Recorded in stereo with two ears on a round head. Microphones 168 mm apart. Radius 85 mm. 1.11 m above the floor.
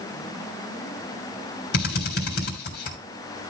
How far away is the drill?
About 3.5 m.